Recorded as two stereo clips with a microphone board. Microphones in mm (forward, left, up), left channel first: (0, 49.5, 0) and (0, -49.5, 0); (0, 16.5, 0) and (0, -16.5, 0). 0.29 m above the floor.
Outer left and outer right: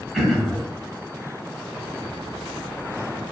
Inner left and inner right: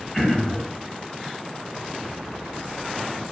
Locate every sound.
0.1 s throat clearing: 5° right (ahead or behind), 0.9 m